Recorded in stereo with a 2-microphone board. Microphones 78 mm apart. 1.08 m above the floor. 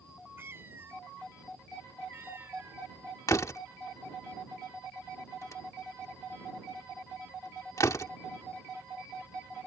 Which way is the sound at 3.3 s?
45° left (ahead or behind).